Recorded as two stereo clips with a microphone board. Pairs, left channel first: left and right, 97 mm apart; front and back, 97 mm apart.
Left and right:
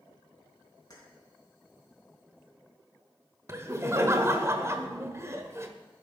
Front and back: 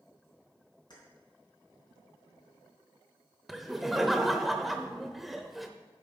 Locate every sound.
0.9 s keys jangling: 40° left, 3 m
3.5 s laughter: 90° right, 0.9 m